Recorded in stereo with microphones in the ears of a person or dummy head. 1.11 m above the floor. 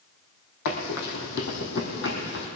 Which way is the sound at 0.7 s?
65° left (ahead or behind).